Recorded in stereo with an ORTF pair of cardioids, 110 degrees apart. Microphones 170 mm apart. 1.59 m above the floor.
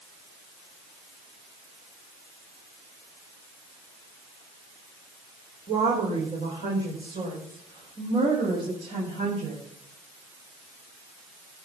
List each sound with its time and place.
5.7 s a woman speaking: 35° right, 4.5 m; by 9.6 s 45° right, 8.5 m